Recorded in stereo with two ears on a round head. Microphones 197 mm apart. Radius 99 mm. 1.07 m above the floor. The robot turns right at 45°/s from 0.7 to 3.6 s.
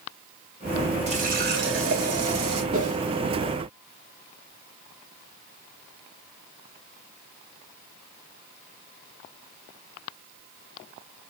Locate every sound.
1.1 s a running tap: 150° right, 2 m; by 2.6 s 80° right, 2 m
2.7 s a whoosh: 60° right (ahead or behind), 2.5 m; by 3.0 s 50° right (ahead or behind), 2.5 m